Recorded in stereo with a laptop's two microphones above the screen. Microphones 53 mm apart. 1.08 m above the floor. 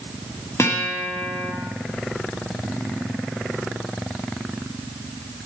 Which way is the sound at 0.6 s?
60° left (ahead or behind).